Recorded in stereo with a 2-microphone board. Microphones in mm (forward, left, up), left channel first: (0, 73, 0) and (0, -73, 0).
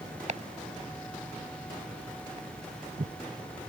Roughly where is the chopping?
Right.